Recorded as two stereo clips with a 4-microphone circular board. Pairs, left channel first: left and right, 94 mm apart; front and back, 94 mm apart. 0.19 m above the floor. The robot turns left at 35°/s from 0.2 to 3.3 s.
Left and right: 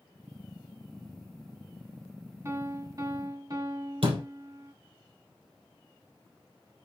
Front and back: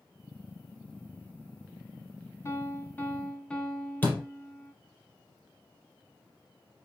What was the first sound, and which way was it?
A piano, 45° right.